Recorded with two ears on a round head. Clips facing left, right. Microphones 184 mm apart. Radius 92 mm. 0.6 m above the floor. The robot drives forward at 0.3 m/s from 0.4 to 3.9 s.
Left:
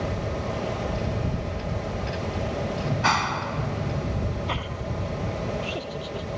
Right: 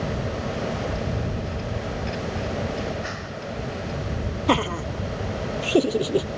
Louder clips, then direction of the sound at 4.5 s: Right 9 dB; 60° right (ahead or behind).